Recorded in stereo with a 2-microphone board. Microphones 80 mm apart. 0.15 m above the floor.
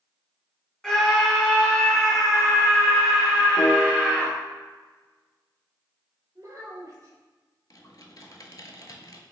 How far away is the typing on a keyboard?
About 0.6 m.